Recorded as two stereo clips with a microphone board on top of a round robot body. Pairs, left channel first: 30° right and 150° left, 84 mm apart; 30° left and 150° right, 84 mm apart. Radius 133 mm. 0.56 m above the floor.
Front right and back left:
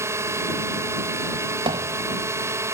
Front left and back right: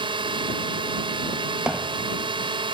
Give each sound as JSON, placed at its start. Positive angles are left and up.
{"t": 0.0, "sound": "a drone", "azimuth_deg": -155}
{"t": 1.7, "sound": "hammering", "azimuth_deg": 130}